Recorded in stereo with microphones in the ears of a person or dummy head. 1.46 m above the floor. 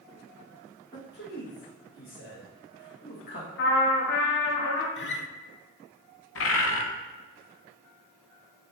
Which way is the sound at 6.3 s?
70° left (ahead or behind).